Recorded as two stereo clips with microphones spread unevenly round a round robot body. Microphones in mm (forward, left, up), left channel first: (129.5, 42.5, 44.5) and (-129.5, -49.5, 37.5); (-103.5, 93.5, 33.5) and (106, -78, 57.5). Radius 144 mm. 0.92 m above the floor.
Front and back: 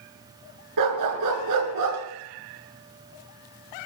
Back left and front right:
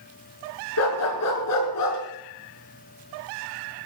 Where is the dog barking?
Straight behind, 5.5 m; by 2.0 s 165° left, 5.5 m.